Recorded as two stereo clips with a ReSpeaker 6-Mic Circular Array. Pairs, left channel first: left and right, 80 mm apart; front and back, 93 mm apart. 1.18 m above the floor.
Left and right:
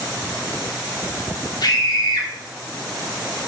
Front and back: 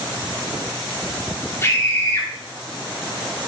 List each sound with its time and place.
1.6 s a scream: 60° left, 2.5 m